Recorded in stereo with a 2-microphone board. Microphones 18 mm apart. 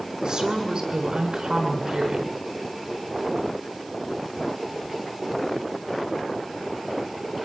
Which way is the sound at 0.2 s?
45° right (ahead or behind).